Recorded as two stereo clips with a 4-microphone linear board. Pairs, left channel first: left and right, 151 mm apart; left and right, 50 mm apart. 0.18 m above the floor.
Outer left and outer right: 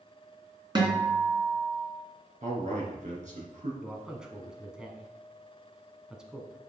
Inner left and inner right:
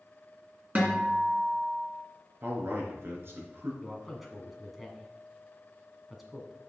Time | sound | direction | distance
0.8 | a guitar | 30° right (ahead or behind) | 2 m
2.4 | a man speaking | 55° right (ahead or behind) | 2.5 m
3.8 | a man speaking | 5° right (ahead or behind) | 1.5 m